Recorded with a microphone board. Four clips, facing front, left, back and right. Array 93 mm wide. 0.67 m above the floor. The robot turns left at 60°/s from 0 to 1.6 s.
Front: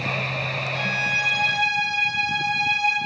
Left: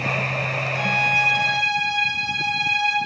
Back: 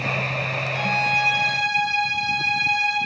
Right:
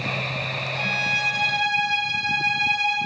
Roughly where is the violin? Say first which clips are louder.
Left 6 dB, back 7 dB; behind left.